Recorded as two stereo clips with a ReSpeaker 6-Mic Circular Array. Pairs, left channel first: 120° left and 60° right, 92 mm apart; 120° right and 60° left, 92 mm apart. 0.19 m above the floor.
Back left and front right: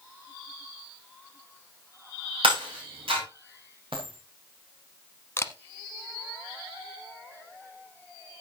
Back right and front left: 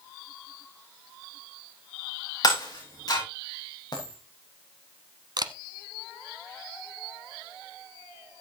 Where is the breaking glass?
75° right, 8.5 m.